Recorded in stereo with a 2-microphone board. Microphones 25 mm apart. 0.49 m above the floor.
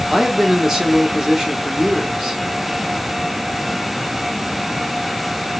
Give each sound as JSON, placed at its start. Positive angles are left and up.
{"t": 0.1, "sound": "a man speaking", "side_deg": -20, "distance_m": 0.9}